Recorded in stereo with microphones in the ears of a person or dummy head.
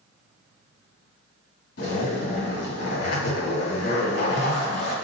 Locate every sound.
1.8 s a zipper: 60° left (ahead or behind), 1.6 m